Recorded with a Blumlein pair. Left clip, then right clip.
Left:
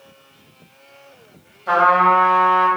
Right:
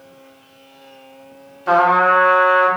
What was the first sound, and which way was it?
A trumpet, 20° right.